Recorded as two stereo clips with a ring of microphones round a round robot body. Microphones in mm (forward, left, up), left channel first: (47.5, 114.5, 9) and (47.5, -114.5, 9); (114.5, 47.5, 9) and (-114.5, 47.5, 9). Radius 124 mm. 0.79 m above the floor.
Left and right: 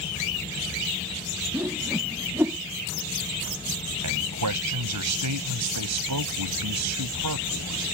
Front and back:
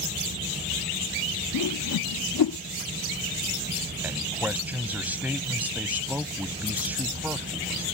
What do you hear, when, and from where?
1.5 s a whoosh: 10° right
4.0 s a man speaking: 95° right